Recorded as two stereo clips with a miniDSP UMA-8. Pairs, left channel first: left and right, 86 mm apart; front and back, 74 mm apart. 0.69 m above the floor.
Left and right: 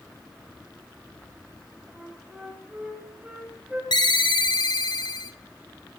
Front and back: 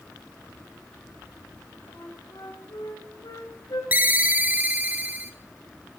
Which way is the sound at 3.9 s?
115° left.